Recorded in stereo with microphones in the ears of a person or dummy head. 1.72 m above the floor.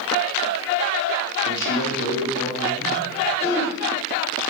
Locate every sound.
1.4 s a man speaking: 70° left (ahead or behind), 8 m
3.4 s throat clearing: 10° left (ahead or behind), 4.5 m